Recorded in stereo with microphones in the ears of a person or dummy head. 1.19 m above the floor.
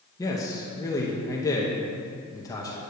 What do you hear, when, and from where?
0.2 s a man speaking: 10° left (ahead or behind), 0.7 m